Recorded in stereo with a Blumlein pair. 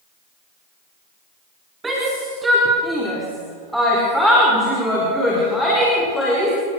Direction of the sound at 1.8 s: 10° right.